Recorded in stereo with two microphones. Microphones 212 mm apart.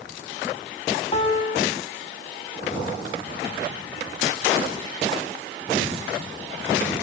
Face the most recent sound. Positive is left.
turn(degrees=25)  # may be behind; listen again after turning